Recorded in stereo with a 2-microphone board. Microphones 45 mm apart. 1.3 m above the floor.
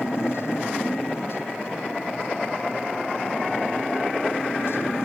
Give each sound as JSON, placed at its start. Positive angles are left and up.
{"t": 0.0, "sound": "a motorcycle", "side_deg": 65}